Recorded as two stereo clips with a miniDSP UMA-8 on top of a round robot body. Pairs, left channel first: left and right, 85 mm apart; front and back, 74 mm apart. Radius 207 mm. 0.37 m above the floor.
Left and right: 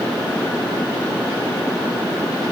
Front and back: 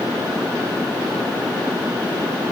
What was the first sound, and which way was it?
Only background noise.